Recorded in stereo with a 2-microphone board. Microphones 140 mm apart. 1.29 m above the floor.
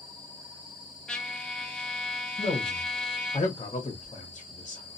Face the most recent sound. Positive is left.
turn(degrees=40)  # may be behind; listen again after turning